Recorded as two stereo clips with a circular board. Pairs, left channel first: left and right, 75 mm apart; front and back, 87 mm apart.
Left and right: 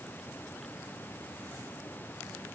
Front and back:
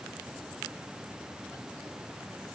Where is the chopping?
I don't hear chopping.